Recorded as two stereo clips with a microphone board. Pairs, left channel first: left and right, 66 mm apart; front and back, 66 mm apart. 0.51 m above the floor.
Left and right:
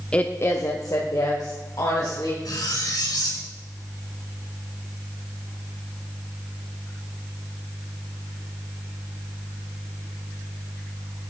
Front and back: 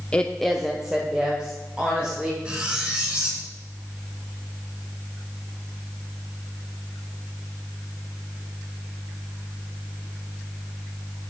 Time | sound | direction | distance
0.1 | a woman speaking | 45° left | 0.7 m
2.5 | cutlery clinking | 105° left | 3 m